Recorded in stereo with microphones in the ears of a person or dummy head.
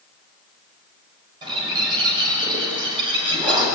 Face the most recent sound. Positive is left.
turn(degrees=-30)  # may be behind; listen again after turning